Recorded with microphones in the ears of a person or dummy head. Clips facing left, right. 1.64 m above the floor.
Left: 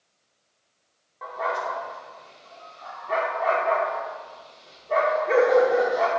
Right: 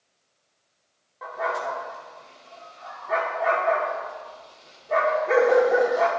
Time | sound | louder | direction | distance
1.2 | a dog barking | even | 5° right (ahead or behind) | 1.9 m